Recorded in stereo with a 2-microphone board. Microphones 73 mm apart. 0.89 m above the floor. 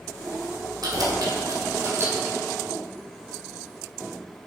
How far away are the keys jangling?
About 2.5 m.